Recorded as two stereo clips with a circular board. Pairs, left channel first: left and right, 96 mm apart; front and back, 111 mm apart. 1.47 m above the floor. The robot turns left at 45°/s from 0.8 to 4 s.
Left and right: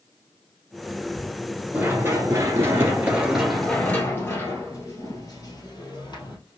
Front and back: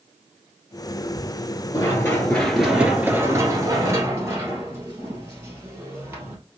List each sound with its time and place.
1.7 s running footsteps: 25° right, 1.7 m; by 6.4 s 115° left, 2.5 m